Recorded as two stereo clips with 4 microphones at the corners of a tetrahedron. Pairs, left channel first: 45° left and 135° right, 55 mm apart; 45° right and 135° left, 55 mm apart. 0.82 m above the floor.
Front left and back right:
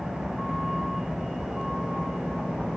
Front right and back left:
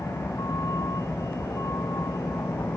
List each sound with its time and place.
0.0 s a vehicle: 50° right